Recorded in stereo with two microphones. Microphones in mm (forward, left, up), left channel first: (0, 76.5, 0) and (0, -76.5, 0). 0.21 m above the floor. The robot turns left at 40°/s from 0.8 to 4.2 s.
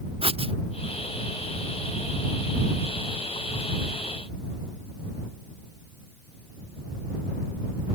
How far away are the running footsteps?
No running footsteps in this recording.